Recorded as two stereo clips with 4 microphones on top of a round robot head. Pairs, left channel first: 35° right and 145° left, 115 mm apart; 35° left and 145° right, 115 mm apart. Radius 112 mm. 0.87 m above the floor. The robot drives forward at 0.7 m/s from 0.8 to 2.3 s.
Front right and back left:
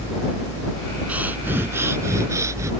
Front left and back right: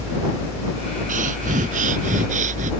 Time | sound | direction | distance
1.1 | breathing | 140° right | ?